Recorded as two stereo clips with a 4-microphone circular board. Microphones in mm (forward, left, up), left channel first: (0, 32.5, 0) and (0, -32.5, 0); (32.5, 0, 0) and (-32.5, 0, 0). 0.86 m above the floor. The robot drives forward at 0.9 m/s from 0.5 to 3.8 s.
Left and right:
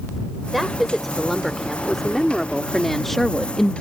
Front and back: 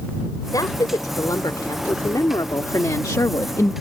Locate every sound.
0.5 s a woman speaking: straight ahead; by 3.7 s 10° left